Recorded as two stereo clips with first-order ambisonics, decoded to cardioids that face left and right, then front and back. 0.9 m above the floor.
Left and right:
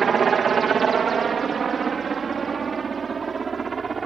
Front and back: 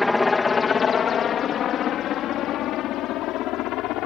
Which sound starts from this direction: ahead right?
A helicopter, at 0.0 s.